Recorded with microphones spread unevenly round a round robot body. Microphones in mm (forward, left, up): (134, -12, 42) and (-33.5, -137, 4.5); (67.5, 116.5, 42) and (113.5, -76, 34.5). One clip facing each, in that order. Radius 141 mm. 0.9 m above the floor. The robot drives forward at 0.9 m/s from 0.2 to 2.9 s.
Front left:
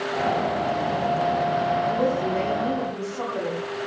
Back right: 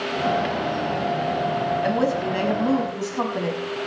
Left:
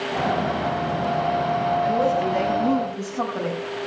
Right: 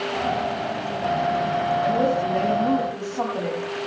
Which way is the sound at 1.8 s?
170° right.